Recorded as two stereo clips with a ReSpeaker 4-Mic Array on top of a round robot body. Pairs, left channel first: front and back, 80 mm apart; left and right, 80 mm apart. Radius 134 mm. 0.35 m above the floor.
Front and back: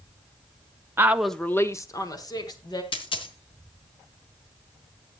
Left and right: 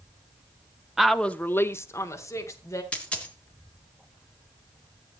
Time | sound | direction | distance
1.0 | a woman speaking | 165° right | 0.9 m
2.9 | a dropped coin | 15° left | 2 m